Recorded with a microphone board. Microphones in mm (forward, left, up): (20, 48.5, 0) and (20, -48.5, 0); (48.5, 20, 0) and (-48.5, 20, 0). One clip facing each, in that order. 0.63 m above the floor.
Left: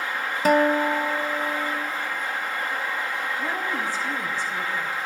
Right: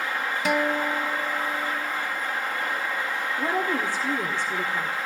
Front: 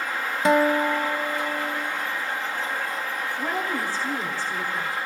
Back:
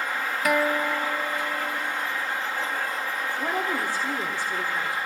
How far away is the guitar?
About 0.6 m.